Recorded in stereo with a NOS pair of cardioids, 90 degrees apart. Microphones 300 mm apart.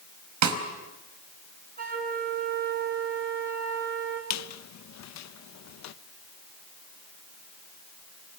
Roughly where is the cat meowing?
I don't hear a cat meowing.